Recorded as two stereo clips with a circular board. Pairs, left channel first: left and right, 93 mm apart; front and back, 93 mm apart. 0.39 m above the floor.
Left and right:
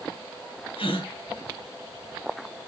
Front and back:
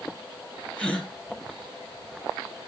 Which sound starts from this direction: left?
A gasp, at 0.8 s.